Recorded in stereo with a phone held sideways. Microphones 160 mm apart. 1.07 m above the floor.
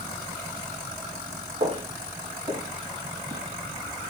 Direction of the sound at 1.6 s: 45° right (ahead or behind).